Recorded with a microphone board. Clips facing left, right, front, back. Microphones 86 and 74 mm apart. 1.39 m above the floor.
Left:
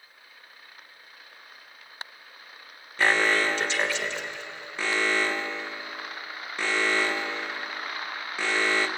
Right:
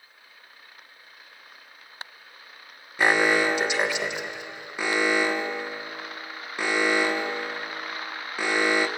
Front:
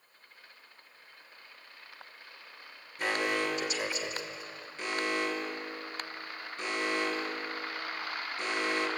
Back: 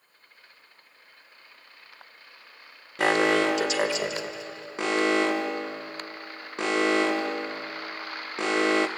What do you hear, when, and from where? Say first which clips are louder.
3.0 s an alarm: right 2 dB, back 9 dB; 165° right, 1.4 m